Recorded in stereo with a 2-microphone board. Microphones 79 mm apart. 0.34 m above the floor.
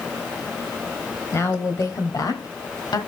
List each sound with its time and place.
1.3 s a woman speaking: 35° left (ahead or behind), 1.7 m; by 3.0 s 55° left (ahead or behind), 1.8 m